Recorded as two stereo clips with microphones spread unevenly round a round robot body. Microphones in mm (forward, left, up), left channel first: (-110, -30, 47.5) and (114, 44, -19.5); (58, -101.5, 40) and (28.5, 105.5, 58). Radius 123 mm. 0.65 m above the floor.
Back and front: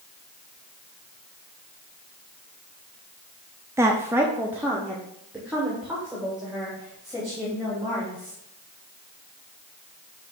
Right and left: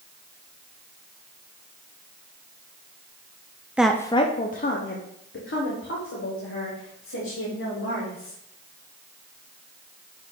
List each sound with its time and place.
3.8 s a woman speaking: 10° left, 0.7 m; by 8.4 s 70° right, 4 m